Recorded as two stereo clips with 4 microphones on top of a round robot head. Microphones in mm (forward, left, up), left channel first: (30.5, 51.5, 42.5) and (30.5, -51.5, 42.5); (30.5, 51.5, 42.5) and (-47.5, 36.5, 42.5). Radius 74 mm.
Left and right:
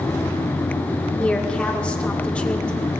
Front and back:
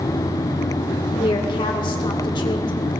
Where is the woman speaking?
10° left, 1.8 m.